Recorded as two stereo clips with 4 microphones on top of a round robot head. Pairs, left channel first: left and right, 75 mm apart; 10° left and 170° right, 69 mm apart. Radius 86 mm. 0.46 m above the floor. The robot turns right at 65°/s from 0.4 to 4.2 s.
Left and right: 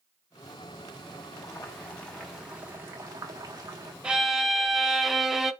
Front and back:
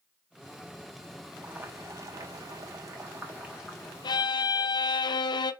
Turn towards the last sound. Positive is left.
turn(degrees=-5)